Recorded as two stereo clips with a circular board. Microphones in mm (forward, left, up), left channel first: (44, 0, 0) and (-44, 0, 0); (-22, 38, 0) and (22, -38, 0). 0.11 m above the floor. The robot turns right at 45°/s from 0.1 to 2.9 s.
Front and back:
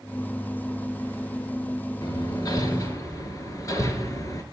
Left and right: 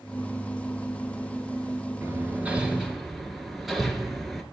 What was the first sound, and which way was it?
Hammering, 10° right.